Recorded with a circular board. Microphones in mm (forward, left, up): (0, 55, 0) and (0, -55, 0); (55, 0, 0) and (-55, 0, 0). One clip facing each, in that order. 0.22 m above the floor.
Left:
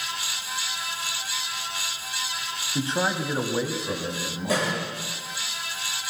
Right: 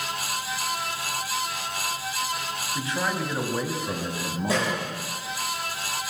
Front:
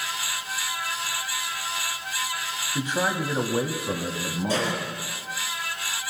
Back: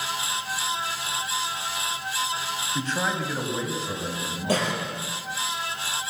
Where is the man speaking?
75° left, 1.1 m; by 4.9 s 40° right, 1.6 m.